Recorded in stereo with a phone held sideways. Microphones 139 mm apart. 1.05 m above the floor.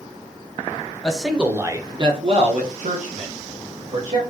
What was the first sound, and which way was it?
A man speaking, 5° left (ahead or behind).